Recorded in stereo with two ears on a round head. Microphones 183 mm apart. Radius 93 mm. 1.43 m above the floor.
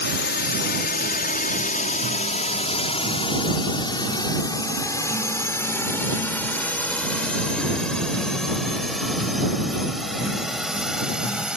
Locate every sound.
0.0 s a drone: 60° left (ahead or behind); by 11.6 s 5° right (ahead or behind)